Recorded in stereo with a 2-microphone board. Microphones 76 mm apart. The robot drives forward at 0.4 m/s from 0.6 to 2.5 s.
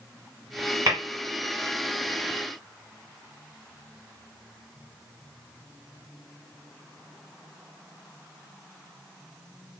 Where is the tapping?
50° right (ahead or behind), 2 m.